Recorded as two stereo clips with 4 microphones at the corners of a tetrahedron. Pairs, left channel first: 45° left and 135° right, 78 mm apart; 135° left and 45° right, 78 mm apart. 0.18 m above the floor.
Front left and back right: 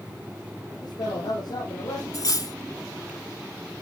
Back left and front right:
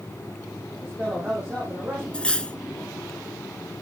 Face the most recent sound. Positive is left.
turn(degrees=60)